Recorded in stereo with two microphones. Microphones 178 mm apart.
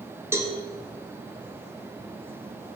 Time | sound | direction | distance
0.3 | a cowbell | 15° right (ahead or behind) | 0.7 m